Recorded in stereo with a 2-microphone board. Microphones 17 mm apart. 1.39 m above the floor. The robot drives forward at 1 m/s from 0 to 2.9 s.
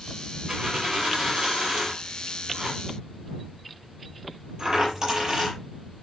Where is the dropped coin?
50° right (ahead or behind), 7 m; by 5.6 s 40° right (ahead or behind), 8.5 m.